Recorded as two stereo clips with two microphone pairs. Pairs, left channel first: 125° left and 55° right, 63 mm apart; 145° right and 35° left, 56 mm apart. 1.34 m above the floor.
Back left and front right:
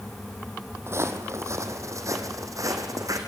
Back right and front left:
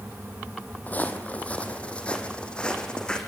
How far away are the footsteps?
About 2.5 m.